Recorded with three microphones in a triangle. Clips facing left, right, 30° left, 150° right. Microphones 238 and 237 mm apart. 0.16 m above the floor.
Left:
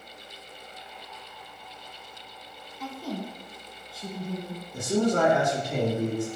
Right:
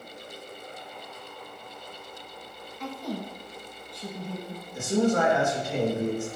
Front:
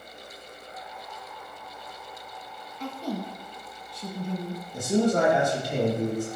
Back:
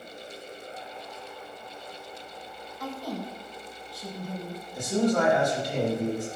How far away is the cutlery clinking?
No cutlery clinking in this recording.